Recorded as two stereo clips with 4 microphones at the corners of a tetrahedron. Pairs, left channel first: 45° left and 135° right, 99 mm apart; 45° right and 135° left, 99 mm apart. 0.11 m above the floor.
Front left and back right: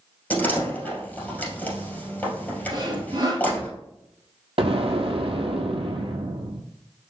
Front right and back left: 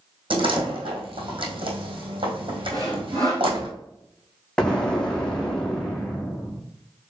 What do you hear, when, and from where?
0.3 s a door slam: 115° left, 1.9 m
2.7 s sawing: straight behind, 2 m
4.6 s an explosion: 125° right, 0.8 m